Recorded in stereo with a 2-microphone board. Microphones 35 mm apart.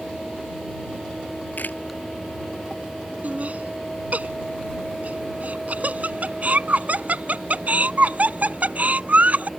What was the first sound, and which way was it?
A camera shutter, 55° left (ahead or behind).